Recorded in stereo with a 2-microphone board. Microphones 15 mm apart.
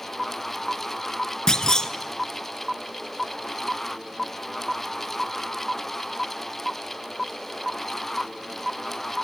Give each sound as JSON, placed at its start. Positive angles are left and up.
{"t": 1.5, "sound": "a clunk", "side_deg": 50, "distance_m": 0.9}